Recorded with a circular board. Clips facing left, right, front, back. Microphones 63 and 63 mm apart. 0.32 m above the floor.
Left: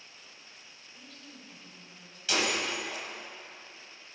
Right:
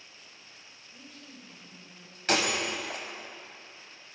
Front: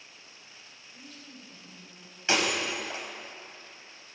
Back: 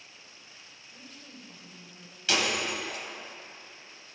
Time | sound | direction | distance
0.9 | a woman speaking | 155° right | 1.8 m
2.3 | breaking glass | 60° right | 0.9 m